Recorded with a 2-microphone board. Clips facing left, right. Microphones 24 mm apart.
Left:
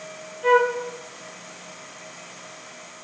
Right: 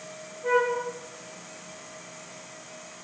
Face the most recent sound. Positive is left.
turn(degrees=70)  # may be behind; listen again after turning